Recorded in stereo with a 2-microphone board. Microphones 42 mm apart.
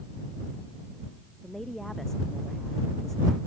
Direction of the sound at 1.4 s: 5° left (ahead or behind).